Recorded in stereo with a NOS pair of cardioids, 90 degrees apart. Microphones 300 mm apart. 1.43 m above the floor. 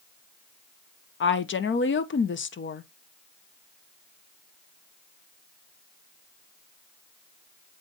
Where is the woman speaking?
40° left, 1.1 m.